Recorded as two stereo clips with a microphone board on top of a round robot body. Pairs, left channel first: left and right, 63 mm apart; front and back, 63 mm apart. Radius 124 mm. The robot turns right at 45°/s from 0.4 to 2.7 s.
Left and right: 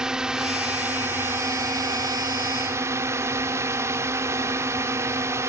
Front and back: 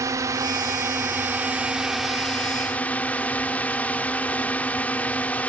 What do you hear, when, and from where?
0.0 s a drone: 165° right; by 5.5 s 65° right